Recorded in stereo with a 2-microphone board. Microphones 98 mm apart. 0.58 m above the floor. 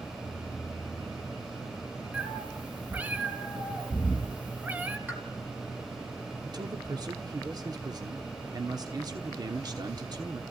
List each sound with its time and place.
2.1 s a cat meowing: 15° right (ahead or behind), 2.5 m
5.1 s a pop: 15° right (ahead or behind), 4 m
6.5 s a man speaking: 40° right (ahead or behind), 1.2 m